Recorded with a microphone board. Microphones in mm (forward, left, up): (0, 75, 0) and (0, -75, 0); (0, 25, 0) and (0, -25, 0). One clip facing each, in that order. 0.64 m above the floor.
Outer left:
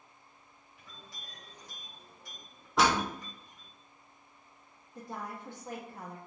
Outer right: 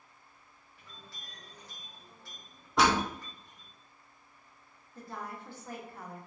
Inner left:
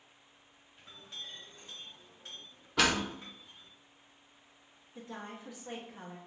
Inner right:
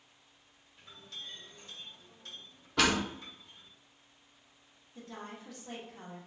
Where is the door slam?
Centre (ahead or behind), 0.5 m.